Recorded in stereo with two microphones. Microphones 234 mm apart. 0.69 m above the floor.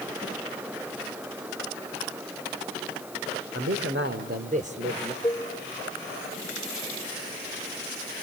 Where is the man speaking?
65° right (ahead or behind), 2.5 m; by 5.1 s 15° right (ahead or behind), 2.5 m.